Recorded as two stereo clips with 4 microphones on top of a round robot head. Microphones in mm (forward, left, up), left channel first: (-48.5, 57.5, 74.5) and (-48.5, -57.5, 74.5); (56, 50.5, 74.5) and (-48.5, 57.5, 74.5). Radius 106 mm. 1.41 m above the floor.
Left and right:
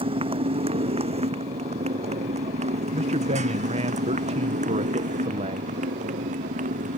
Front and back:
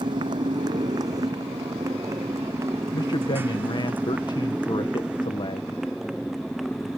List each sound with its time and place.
0.0 s a motorcycle: 130° right; by 7.0 s 95° right
2.9 s a man speaking: 55° right